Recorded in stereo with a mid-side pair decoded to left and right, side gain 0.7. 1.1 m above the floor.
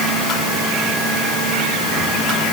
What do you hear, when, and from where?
Only background noise.